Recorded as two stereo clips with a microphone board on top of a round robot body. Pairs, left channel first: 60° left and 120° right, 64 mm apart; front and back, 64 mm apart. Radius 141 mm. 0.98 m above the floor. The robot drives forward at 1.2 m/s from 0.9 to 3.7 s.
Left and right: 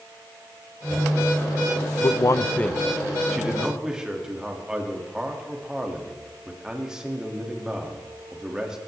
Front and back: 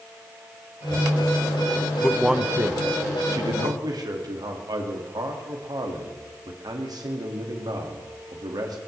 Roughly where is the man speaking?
Left.